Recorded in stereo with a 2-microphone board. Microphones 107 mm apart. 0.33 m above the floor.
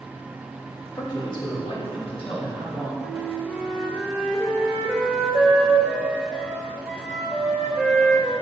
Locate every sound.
0.9 s a man speaking: 30° left (ahead or behind), 0.9 m; by 2.9 s 75° left (ahead or behind), 3 m
3.0 s a flute: 5° left (ahead or behind), 2.5 m